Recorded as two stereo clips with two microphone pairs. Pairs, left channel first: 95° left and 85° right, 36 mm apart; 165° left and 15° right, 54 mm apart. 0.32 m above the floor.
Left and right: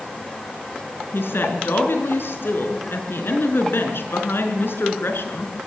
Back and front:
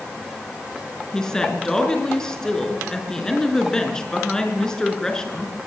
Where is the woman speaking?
85° left, 5 m.